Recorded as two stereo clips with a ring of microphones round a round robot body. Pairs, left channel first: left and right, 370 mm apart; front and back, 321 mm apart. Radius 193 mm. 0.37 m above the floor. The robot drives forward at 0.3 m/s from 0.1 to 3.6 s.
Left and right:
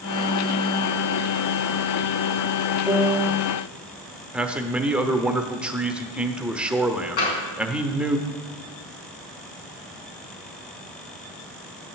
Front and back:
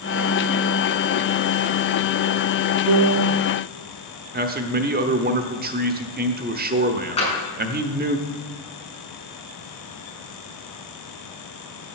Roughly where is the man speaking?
Behind.